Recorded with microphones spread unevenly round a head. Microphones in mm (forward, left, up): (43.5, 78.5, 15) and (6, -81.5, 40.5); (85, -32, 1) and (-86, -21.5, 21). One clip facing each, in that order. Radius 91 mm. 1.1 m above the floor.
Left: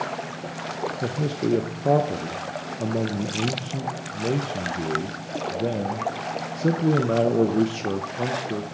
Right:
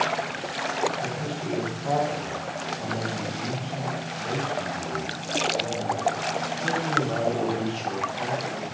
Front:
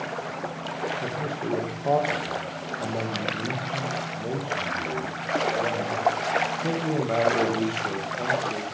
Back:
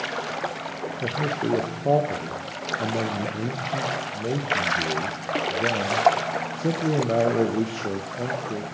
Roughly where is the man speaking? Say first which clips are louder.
Left 6 dB, back 3 dB; left.